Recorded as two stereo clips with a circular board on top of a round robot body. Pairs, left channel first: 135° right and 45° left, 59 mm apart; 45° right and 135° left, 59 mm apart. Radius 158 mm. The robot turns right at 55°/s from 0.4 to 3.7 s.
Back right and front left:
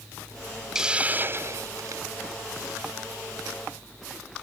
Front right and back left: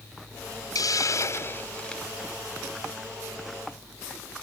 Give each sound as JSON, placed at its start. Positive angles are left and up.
{"t": 0.8, "sound": "a hiss", "azimuth_deg": -35}